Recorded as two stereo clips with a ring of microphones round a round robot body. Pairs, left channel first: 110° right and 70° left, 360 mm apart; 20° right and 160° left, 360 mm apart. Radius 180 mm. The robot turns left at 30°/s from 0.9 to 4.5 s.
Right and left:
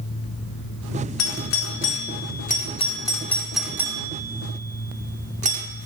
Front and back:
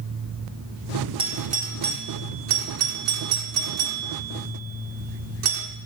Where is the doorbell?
130° right, 1.8 m; by 5.7 s 130° left, 1.8 m.